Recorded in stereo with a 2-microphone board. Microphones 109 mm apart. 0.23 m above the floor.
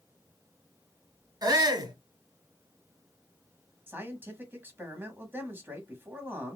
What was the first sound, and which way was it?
A shout, 40° right (ahead or behind).